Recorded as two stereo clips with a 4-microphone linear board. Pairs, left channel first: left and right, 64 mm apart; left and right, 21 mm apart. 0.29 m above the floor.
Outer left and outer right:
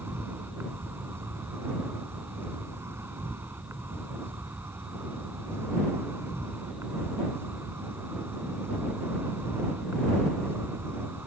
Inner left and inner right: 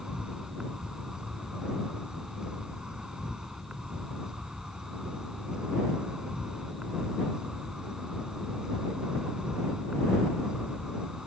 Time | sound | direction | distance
0.0 | an insect | 45° right (ahead or behind) | ?